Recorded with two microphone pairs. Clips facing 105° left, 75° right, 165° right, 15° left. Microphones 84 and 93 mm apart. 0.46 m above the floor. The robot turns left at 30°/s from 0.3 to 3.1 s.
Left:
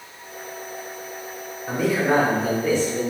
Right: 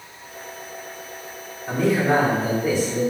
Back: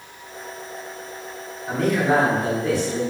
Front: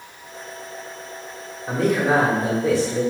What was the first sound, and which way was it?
A man speaking, 25° left.